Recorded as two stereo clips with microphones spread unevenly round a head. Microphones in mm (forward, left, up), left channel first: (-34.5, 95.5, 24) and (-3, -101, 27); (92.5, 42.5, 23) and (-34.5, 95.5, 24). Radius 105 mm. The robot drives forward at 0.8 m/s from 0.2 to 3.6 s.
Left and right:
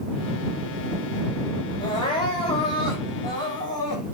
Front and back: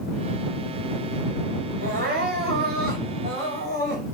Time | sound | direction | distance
1.8 | crying | 170° left | 5 m